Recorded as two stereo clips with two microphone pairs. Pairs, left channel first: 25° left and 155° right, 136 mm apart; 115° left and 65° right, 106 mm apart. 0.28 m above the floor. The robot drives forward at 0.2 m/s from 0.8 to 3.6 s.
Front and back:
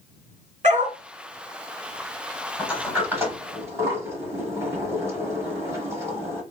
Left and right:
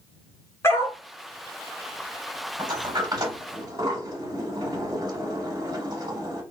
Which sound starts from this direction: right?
A sliding door, at 2.6 s.